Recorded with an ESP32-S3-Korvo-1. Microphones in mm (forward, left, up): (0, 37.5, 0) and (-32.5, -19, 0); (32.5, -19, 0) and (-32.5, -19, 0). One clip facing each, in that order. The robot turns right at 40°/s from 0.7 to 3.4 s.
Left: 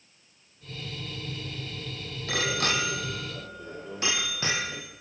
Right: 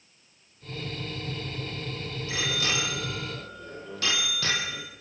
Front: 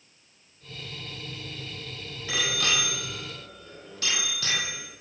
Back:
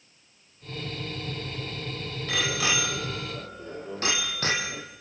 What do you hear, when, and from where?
2.3 s a bicycle bell: 85° left, 5 m; by 4.8 s 130° left, 5 m